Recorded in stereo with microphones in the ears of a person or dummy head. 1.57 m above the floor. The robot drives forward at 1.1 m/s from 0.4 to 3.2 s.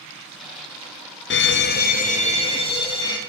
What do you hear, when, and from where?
1.3 s a fire alarm: 55° left (ahead or behind), 1.0 m; by 3.2 s 20° left (ahead or behind), 2.5 m